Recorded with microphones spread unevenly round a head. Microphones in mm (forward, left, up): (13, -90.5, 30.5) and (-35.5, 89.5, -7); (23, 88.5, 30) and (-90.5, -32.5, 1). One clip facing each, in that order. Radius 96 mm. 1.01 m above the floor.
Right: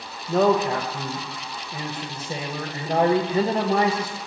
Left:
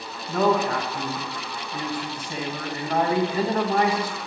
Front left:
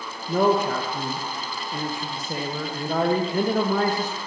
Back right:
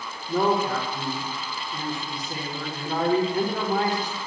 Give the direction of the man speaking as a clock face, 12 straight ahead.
12 o'clock.